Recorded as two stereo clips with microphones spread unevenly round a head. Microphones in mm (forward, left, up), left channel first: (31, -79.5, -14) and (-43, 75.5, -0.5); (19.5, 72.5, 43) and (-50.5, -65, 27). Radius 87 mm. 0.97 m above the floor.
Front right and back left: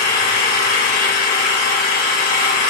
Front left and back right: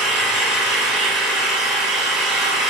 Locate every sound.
0.0 s an engine running: 30° right, 2.5 m